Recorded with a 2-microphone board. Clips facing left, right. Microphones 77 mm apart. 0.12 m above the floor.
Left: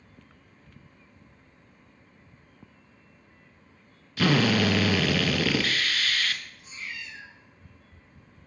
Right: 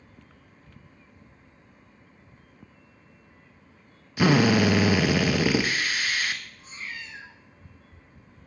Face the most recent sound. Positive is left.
turn(degrees=-40)  # may be behind; listen again after turning